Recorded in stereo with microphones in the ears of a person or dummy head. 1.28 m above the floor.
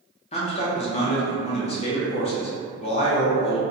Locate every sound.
0.3 s a man speaking: 25° left (ahead or behind), 0.5 m